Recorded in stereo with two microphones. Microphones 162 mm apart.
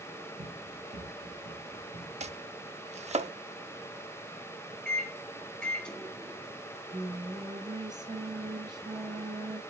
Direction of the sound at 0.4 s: 65° right (ahead or behind).